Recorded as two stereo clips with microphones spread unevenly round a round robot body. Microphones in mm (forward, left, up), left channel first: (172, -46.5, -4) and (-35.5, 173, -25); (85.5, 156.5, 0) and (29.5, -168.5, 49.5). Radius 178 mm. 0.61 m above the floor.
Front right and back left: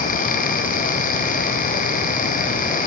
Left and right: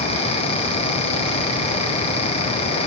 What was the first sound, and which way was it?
Only background noise.